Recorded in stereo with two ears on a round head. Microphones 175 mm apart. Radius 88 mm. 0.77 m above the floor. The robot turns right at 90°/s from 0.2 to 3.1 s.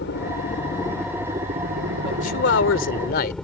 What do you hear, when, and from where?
0.0 s a helicopter: 100° left; by 3.5 s 5° left
2.0 s a man speaking: 30° left; by 3.4 s 125° left